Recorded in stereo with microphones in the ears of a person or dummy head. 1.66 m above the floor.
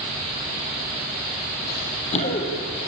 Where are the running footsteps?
50° left (ahead or behind), 3.5 m; by 2.7 s 25° left (ahead or behind), 3 m.